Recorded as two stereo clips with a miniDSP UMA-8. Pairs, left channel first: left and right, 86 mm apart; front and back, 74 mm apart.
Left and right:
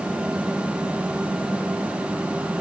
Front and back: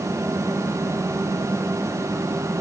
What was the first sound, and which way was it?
Only background noise.